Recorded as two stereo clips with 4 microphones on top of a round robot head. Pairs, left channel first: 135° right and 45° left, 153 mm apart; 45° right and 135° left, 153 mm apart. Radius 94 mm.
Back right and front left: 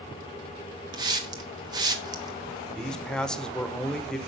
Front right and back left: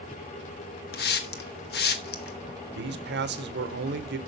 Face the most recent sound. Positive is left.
turn(degrees=140)